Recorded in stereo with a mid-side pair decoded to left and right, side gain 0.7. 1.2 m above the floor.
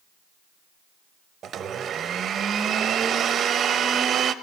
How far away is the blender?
About 0.8 m.